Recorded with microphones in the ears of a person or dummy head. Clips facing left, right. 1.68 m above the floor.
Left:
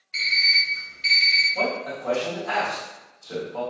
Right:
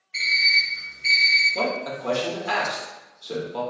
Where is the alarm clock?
50° left (ahead or behind), 1.7 m.